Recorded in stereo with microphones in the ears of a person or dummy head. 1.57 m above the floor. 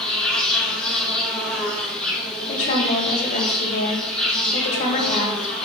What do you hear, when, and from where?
0.0 s an insect: centre (ahead or behind), 2.5 m
2.5 s a woman speaking: 40° left (ahead or behind), 3 m